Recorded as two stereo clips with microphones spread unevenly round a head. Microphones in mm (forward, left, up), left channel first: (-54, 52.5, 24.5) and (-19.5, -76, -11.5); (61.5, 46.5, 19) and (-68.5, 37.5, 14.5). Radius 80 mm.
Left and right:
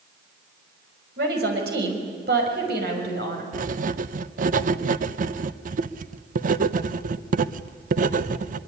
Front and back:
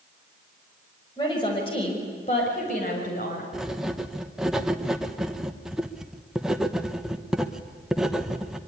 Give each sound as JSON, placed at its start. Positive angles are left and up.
{"t": 1.2, "sound": "a woman speaking", "azimuth_deg": -60, "distance_m": 5.5}
{"t": 3.5, "sound": "writing", "azimuth_deg": -90, "distance_m": 0.8}